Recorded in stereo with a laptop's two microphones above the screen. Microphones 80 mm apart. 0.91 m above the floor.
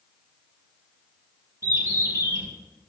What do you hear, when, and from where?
1.6 s a bird: 40° right (ahead or behind), 2.5 m